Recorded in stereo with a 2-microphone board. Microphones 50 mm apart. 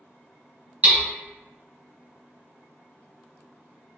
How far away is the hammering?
About 1.5 m.